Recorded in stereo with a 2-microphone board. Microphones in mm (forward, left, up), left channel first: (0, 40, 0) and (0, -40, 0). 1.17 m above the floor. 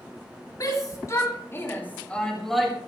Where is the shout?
45° left (ahead or behind), 4 m; by 2.8 s 5° right (ahead or behind), 2.5 m.